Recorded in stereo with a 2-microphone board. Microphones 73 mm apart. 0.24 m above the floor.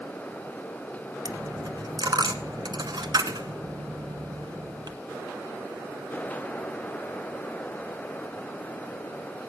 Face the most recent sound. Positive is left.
turn(degrees=-70)  # may be behind; listen again after turning